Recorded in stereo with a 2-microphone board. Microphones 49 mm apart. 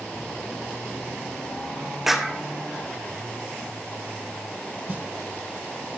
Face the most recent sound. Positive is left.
turn(degrees=-35)  # may be behind; listen again after turning